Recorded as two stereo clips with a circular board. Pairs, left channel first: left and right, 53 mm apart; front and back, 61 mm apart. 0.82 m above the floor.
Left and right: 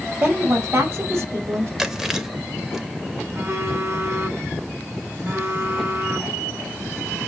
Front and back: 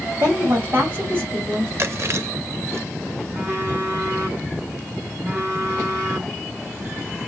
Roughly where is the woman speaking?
Behind right.